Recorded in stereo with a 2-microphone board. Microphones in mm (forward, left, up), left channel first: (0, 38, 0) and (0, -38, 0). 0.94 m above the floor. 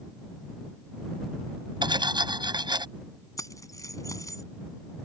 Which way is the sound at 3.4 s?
45° left (ahead or behind).